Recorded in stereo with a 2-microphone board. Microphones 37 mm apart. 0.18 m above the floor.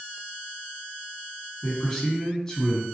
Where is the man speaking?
15° left (ahead or behind), 1.7 m.